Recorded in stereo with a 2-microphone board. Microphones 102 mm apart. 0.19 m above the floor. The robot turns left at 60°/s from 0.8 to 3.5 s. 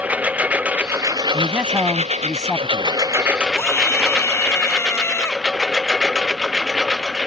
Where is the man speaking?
15° right (ahead or behind); by 3.0 s 15° left (ahead or behind).